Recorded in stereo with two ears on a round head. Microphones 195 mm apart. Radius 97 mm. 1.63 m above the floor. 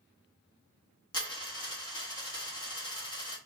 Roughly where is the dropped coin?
Left.